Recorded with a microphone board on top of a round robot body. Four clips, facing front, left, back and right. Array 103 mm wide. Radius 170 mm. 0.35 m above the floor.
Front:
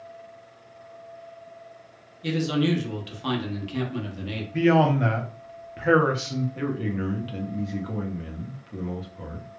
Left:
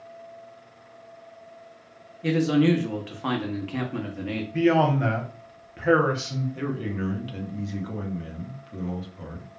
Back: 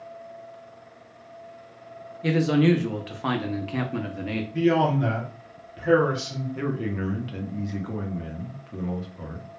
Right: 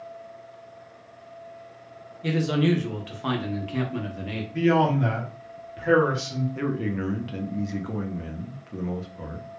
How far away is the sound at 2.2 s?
About 0.9 m.